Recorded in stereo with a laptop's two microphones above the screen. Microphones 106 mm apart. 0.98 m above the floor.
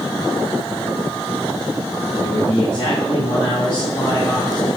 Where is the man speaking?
65° left (ahead or behind), 8 m.